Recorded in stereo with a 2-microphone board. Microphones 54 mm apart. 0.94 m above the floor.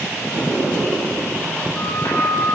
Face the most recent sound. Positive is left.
turn(degrees=50)  # may be behind; listen again after turning